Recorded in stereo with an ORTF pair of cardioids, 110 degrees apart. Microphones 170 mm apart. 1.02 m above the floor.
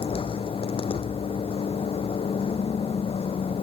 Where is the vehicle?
35° left.